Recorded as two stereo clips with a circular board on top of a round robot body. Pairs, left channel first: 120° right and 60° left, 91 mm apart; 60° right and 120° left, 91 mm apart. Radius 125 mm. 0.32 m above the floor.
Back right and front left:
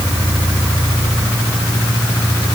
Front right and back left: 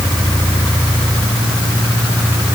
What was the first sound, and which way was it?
Only background noise.